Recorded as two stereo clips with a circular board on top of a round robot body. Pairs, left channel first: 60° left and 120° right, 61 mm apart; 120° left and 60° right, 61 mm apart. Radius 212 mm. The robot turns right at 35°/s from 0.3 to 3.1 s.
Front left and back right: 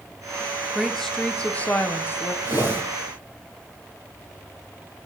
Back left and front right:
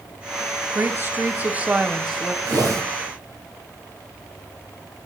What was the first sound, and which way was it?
A woman speaking, 30° right.